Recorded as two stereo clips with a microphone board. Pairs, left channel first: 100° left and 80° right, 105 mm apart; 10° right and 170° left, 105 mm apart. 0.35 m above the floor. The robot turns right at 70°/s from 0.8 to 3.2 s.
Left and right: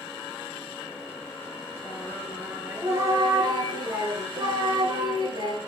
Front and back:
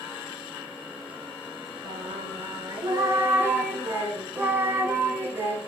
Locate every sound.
1.8 s singing: 145° left, 1.1 m; by 5.6 s 120° right, 1.1 m